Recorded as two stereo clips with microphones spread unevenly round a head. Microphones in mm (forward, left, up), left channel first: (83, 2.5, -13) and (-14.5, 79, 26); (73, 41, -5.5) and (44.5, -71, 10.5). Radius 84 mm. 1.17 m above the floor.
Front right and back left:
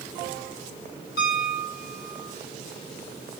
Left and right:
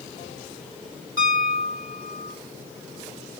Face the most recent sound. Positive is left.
turn(degrees=-50)